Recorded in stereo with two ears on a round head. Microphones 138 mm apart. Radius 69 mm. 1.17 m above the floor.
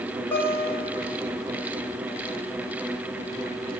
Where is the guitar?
15° left (ahead or behind), 1.7 m.